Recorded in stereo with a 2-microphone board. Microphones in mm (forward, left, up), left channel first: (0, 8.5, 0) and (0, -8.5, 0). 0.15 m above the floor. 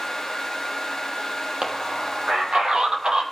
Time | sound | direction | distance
1.6 | a man speaking | 50° right (ahead or behind) | 5.5 m